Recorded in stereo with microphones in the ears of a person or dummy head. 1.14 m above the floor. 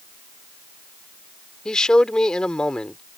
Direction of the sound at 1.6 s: 5° left (ahead or behind).